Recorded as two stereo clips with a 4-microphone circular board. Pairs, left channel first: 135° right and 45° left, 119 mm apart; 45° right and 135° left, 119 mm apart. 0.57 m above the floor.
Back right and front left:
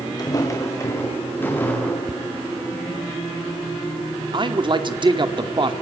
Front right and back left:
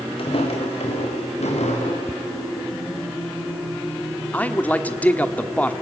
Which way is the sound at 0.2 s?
80° right.